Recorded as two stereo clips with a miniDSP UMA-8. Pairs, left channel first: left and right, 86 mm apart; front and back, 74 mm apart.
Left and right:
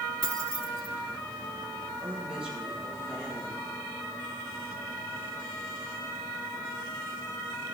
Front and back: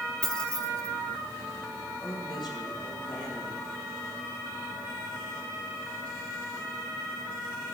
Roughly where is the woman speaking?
Ahead.